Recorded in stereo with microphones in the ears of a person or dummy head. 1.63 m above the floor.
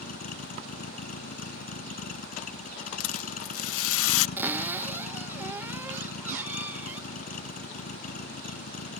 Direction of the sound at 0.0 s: 50° left (ahead or behind).